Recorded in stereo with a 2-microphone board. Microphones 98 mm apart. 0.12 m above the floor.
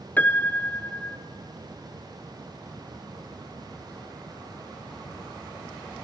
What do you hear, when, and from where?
0.2 s a piano: 20° left (ahead or behind), 0.5 m